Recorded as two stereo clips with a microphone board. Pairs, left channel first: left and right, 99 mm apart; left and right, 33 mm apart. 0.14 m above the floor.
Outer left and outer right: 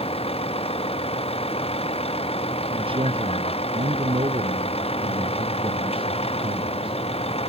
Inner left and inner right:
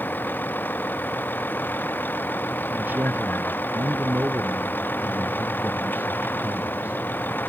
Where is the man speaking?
60° right (ahead or behind).